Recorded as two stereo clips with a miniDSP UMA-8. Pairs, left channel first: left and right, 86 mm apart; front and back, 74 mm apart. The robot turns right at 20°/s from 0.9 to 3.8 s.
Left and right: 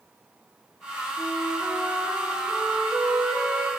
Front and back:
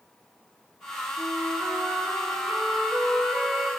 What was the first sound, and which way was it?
A flute, 140° right.